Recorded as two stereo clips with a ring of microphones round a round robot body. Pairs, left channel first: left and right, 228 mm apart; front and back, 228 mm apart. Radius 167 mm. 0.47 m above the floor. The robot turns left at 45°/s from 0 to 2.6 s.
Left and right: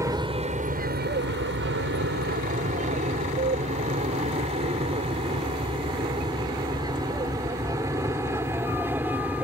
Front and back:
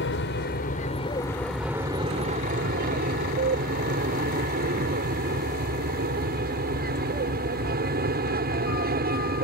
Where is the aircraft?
15° right; by 9.4 s 170° right.